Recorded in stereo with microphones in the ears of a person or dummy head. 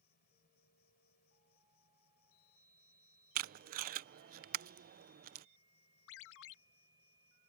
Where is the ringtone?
60° left (ahead or behind).